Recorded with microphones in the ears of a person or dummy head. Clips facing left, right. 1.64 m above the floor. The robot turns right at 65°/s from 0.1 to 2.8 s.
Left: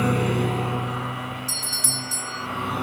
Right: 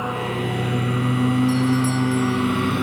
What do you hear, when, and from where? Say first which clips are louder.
0.0 s a lawn mower: left 3 dB; 155° left; by 2.8 s 25° right
1.5 s a doorbell: right 18 dB; 95° left; by 2.5 s 160° left